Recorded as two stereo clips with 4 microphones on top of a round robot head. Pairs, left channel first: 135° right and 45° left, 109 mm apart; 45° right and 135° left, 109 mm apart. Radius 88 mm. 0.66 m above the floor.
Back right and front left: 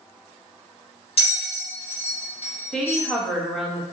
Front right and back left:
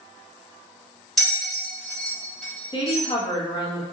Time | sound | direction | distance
1.2 | a bell | 130° right | 1.8 m
2.7 | a woman speaking | 50° right | 0.9 m